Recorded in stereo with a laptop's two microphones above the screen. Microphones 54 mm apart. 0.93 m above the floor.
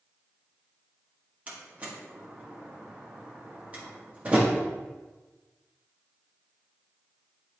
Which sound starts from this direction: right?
A door slam, at 1.5 s.